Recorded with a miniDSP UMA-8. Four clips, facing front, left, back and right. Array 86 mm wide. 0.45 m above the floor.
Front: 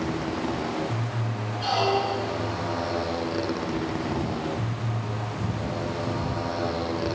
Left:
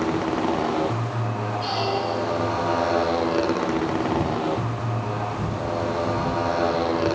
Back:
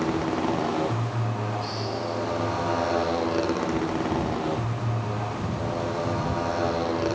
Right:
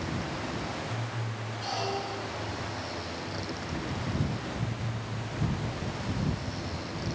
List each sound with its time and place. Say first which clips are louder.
0.0 s a motorcycle: left 12 dB, back 3 dB; 115° left; by 7.2 s 105° left
1.6 s a squeak: left 7 dB, front 6 dB; 20° left